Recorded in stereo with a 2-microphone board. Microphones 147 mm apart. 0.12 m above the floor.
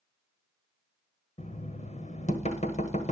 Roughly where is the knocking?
Left.